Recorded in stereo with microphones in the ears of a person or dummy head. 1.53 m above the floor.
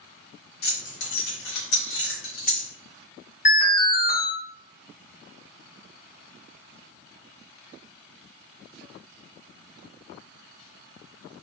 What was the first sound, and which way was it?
Keys jangling, 65° left (ahead or behind).